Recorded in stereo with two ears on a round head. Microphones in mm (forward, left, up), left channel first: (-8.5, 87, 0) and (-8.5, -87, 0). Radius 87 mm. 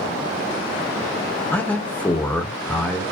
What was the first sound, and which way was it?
A man speaking, 10° left (ahead or behind).